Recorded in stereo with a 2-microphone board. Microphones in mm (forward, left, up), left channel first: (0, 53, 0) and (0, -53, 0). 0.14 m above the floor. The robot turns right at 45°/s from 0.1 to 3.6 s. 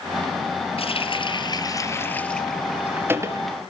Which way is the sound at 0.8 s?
100° left.